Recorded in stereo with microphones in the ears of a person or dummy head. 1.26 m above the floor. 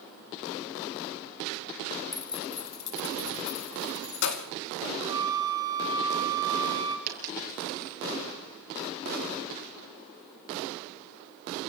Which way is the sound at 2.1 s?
20° left (ahead or behind).